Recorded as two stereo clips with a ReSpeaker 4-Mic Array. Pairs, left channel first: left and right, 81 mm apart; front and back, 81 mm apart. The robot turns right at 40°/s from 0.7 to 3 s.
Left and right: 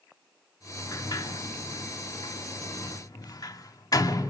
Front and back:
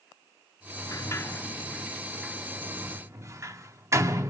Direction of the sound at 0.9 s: 45° left.